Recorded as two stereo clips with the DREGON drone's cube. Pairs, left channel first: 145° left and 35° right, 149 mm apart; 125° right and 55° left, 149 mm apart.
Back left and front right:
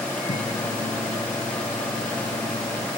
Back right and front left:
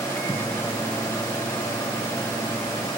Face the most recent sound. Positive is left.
turn(degrees=170)